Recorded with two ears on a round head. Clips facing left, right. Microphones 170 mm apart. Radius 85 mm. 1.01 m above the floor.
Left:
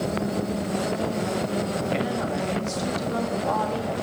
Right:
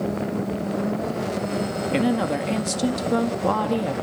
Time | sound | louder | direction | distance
1.9 | a woman speaking | right 5 dB | 70° right (ahead or behind) | 1.8 m